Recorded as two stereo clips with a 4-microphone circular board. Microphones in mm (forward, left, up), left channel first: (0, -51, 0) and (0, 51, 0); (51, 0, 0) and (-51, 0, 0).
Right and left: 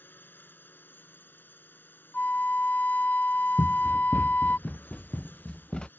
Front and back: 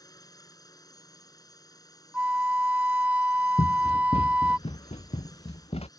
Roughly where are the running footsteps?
Ahead right.